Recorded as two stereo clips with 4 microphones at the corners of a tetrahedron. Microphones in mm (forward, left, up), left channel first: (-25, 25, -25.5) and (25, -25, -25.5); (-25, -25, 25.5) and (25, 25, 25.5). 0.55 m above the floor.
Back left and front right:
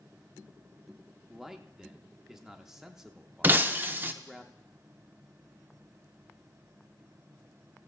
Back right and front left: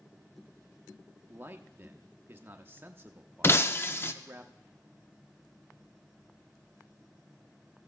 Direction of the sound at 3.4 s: 95° right.